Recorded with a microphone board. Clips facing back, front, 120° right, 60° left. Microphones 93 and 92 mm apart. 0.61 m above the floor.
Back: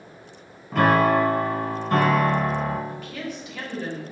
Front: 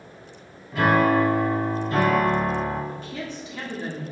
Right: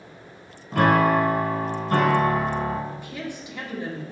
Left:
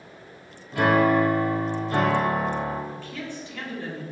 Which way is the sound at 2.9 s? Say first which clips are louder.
Even, right 1 dB; 50° right.